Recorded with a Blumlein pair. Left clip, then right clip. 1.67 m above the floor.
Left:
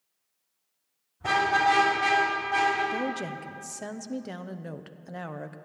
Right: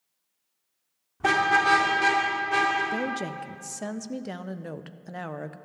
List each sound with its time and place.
1.2 s a car horn: 55° right, 2.5 m; by 2.8 s 40° right, 4.5 m
2.9 s a woman speaking: 5° right, 0.5 m